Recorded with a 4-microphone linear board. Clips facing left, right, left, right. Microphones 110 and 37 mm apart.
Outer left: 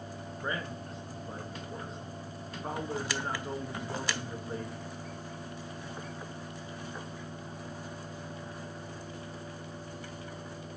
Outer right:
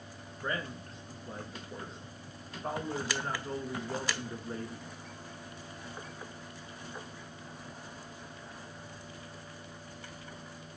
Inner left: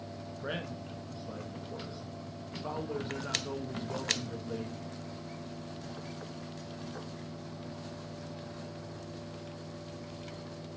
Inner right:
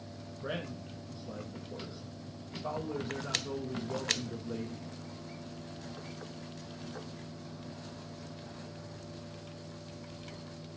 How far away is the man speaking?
About 1.1 m.